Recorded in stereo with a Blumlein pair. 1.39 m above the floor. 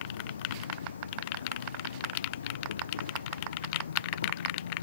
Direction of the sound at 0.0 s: 70° left.